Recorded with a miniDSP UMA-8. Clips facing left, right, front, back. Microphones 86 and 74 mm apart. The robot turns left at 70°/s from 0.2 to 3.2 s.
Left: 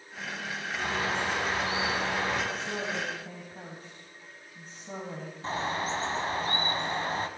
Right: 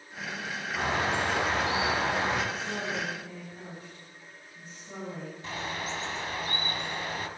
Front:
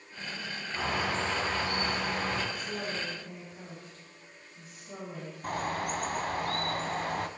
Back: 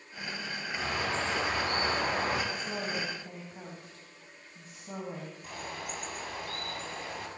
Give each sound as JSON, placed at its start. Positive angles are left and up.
{"t": 0.8, "sound": "a bird", "azimuth_deg": -50, "distance_m": 4.5}
{"t": 2.5, "sound": "a woman speaking", "azimuth_deg": -175, "distance_m": 3.0}
{"t": 5.4, "sound": "a bird", "azimuth_deg": 35, "distance_m": 1.1}